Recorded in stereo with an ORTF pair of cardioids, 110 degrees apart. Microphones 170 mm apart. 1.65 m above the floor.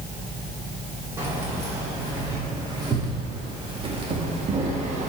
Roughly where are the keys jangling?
Ahead.